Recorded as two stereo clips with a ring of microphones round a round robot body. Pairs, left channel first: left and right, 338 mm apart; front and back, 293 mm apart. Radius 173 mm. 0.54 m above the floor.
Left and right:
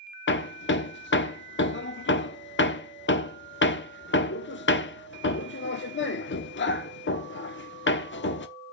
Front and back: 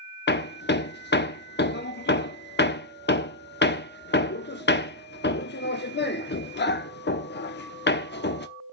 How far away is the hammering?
About 0.9 m.